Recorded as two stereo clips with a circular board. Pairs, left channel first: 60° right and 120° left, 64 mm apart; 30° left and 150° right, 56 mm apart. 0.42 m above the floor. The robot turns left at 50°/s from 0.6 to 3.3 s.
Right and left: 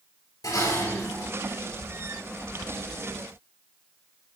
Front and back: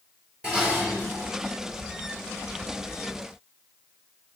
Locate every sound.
0.4 s dishes clattering: 75° right, 6 m; by 1.3 s 110° right, 6 m